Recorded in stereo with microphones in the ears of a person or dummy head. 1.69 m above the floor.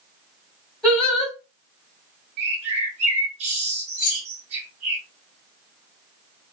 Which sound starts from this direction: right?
A bird, at 2.4 s.